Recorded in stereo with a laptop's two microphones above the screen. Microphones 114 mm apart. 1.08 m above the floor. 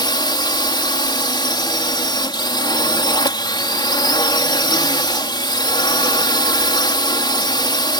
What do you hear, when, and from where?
0.0 s a drone: 40° left (ahead or behind)